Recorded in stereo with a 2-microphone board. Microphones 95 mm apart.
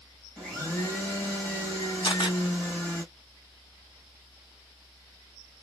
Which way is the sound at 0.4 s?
20° left (ahead or behind).